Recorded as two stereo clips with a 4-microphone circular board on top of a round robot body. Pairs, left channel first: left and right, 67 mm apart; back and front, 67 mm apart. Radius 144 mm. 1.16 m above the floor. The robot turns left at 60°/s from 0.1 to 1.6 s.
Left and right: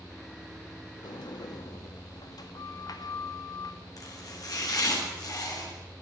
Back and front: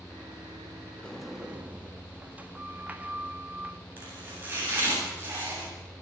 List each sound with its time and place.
1.0 s a sliding door: 100° left, 2 m; by 3.8 s 70° left, 2 m
4.0 s chopping: 60° left, 9 m